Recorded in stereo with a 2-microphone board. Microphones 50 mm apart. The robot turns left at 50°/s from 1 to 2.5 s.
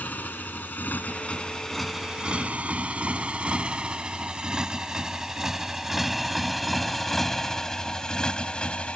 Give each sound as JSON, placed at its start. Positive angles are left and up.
{"t": 0.0, "sound": "a motorcycle", "side_deg": 35}